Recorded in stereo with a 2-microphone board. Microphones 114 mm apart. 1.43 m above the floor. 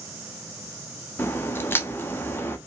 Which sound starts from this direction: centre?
A crack, at 1.2 s.